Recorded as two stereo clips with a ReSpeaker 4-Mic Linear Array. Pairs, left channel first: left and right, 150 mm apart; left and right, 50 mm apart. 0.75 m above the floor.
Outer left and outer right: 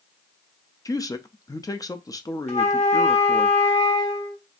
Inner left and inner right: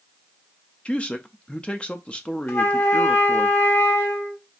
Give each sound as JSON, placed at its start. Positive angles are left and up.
{"t": 0.8, "sound": "a man speaking", "side_deg": 25, "distance_m": 0.5}
{"t": 2.5, "sound": "a flute", "side_deg": 50, "distance_m": 1.3}